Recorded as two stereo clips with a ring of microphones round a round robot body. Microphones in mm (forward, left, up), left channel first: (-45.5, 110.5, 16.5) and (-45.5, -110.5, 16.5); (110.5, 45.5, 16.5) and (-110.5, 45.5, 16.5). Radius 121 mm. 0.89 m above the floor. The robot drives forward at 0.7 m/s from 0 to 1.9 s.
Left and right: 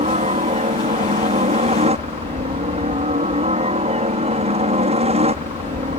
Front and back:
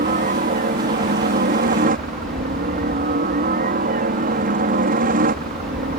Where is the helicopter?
140° right.